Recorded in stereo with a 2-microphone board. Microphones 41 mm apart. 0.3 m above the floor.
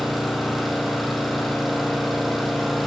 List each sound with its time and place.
0.0 s an engine running: centre (ahead or behind), 6.5 m